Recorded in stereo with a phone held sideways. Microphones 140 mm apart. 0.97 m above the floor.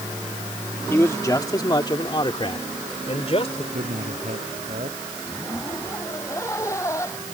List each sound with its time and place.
0.9 s a man speaking: 15° left (ahead or behind); by 3.6 s 45° left (ahead or behind)
3.7 s a man speaking: 65° right (ahead or behind)
5.2 s a zipper: 20° left (ahead or behind)